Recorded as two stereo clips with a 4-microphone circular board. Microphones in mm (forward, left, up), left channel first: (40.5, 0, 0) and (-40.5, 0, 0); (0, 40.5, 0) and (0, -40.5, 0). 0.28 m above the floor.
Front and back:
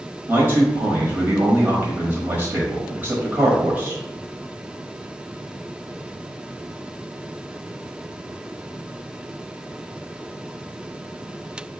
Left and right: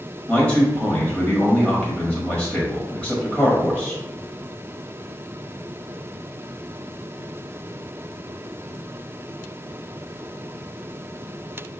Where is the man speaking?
145° left, 1.1 m.